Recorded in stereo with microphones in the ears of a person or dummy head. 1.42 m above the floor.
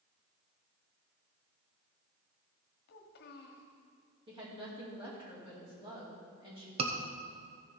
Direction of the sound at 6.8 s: 35° right (ahead or behind).